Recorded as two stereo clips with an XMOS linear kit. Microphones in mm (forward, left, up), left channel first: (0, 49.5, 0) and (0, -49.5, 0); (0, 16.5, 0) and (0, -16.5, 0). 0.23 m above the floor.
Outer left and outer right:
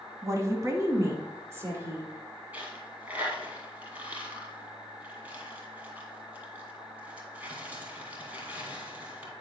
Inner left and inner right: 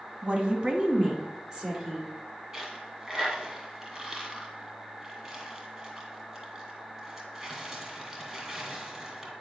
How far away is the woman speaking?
About 1.3 m.